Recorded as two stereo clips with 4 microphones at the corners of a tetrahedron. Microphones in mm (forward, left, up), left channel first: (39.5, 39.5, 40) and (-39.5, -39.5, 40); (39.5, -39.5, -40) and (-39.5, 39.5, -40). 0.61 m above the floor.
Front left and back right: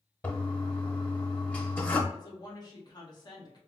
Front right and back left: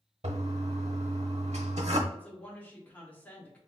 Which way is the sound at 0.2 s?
120° left.